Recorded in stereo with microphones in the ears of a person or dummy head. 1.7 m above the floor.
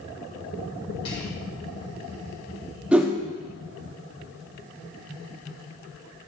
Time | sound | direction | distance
1.1 | whispering | 30° left (ahead or behind) | 3 m
2.9 | a whoosh | 5° right (ahead or behind) | 0.7 m